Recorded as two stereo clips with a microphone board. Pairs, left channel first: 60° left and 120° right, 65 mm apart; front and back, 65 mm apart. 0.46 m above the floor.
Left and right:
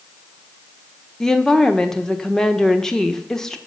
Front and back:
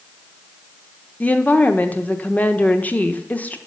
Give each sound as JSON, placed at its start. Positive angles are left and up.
{"t": 1.2, "sound": "a woman speaking", "azimuth_deg": -5, "distance_m": 0.9}